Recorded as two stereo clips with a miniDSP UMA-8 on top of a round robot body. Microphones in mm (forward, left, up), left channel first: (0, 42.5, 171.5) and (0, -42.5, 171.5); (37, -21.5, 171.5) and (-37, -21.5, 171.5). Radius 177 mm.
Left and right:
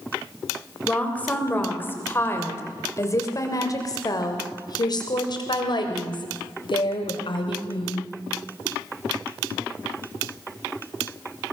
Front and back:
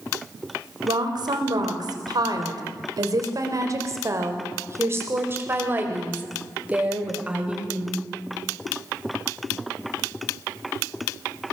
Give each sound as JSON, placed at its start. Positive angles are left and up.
{"t": 0.8, "sound": "a woman speaking", "azimuth_deg": 165, "distance_m": 3.0}